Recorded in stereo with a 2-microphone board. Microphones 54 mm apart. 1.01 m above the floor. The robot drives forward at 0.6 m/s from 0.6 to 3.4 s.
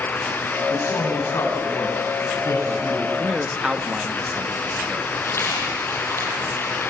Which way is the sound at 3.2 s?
20° right (ahead or behind).